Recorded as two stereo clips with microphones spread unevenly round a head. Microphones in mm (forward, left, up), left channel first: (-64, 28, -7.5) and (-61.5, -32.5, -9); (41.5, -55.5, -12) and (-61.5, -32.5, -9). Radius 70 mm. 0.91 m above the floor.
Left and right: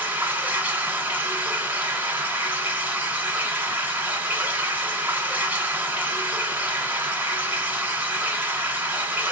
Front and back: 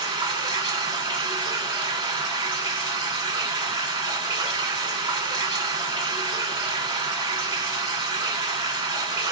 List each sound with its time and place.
0.0 s running water: 150° right, 1.8 m